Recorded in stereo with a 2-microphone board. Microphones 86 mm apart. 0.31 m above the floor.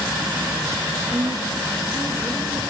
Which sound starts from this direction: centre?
A woman speaking, at 1.1 s.